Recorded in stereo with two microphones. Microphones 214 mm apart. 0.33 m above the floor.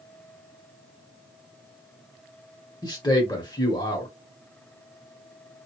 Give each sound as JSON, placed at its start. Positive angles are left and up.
{"t": 2.8, "sound": "a man speaking", "side_deg": 20, "distance_m": 0.8}